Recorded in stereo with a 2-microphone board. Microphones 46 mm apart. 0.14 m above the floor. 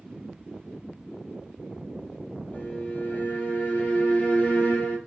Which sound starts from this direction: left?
A violin, at 2.5 s.